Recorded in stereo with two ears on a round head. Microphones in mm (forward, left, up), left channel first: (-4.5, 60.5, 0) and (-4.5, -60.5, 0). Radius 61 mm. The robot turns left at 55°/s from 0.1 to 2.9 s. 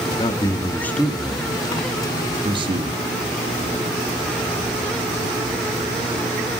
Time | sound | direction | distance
0.2 | a man speaking | 30° left (ahead or behind) | 0.6 m